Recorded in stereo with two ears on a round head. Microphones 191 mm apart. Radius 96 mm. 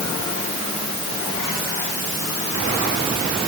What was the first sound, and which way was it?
Only background noise.